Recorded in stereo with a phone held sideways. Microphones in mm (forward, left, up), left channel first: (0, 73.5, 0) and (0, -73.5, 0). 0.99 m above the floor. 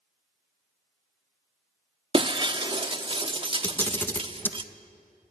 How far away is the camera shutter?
About 0.9 m.